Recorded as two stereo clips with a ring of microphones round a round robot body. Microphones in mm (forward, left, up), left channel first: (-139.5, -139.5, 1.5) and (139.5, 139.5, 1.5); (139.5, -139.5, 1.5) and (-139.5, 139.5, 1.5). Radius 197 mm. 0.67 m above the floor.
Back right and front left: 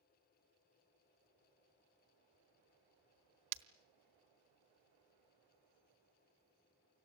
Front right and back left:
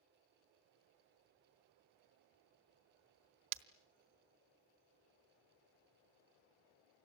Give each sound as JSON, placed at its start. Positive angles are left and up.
{"t": 3.5, "sound": "breaking glass", "azimuth_deg": 90, "distance_m": 1.3}